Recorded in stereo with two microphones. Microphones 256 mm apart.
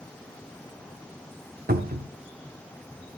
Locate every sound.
1.7 s a cupboard door: 40° right (ahead or behind), 0.9 m